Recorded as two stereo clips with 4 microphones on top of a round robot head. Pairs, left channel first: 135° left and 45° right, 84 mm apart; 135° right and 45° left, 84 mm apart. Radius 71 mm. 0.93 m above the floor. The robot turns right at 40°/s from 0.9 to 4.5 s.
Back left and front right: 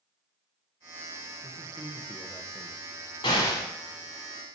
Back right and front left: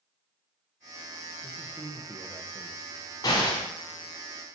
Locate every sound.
1.4 s a man speaking: 30° right, 0.6 m; by 2.8 s 25° left, 0.6 m
3.2 s an explosion: 175° left, 1.2 m; by 3.7 s 170° right, 1.2 m